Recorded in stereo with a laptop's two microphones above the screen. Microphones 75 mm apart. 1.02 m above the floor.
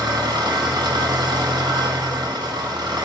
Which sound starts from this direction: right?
An engine running, at 0.0 s.